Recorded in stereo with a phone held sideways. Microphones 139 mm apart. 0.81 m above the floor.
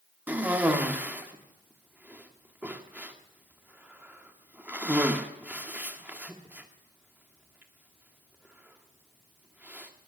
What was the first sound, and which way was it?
A cough, 10° right (ahead or behind).